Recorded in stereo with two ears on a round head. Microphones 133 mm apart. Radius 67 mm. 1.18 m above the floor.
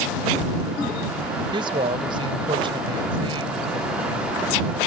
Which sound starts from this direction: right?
A woman speaking, at 1.5 s.